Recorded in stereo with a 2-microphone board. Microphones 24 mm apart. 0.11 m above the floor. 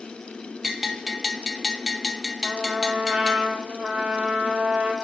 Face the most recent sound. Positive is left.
turn(degrees=-55)  # may be behind; listen again after turning